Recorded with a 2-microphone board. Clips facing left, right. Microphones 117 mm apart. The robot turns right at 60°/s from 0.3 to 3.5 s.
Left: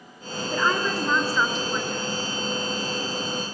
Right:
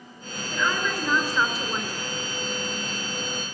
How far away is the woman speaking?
About 4.5 m.